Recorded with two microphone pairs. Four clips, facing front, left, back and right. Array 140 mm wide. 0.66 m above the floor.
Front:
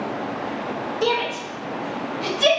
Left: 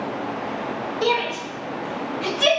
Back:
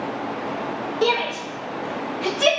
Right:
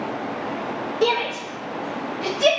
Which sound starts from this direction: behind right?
A shout, at 1.0 s.